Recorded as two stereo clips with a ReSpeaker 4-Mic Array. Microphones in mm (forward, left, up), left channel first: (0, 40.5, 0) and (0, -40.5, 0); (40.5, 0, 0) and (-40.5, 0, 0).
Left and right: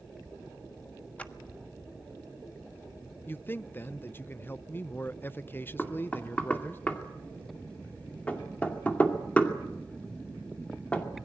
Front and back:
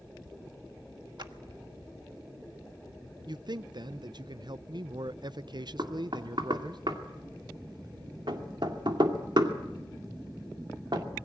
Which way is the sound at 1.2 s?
160° left.